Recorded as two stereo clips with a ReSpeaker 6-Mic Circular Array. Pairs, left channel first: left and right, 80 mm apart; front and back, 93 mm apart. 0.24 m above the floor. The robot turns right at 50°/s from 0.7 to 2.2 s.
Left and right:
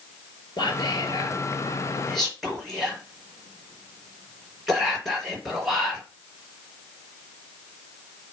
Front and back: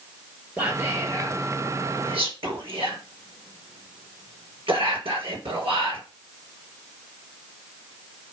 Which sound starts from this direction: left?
Whispering, at 0.6 s.